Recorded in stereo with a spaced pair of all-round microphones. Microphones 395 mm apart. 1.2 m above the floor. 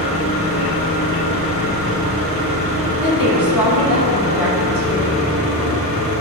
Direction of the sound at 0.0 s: 60° left (ahead or behind).